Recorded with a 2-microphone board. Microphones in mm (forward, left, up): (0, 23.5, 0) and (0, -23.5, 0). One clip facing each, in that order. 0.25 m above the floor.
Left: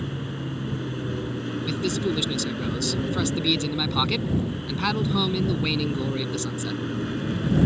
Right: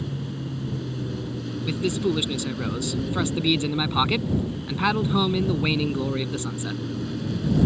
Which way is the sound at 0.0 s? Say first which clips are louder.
Even; 35° left (ahead or behind).